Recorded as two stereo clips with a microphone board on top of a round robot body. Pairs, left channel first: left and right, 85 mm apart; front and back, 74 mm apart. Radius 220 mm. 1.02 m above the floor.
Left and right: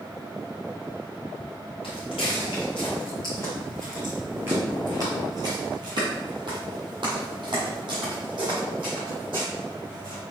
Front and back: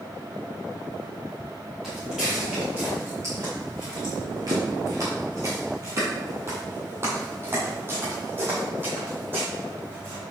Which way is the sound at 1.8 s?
90° left.